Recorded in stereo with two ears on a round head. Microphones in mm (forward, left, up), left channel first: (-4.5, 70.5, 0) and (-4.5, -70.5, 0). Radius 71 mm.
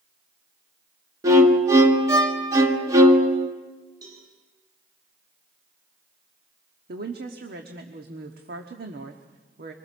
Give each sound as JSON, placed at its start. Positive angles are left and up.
{"t": 1.2, "sound": "a violin", "side_deg": -20, "distance_m": 1.5}
{"t": 4.0, "sound": "a cowbell", "side_deg": -25, "distance_m": 9.0}
{"t": 6.9, "sound": "a woman speaking", "side_deg": -65, "distance_m": 1.3}